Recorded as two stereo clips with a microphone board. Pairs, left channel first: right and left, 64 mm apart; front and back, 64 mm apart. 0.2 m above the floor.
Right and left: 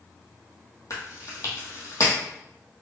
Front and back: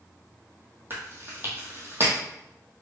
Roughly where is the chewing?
Behind right.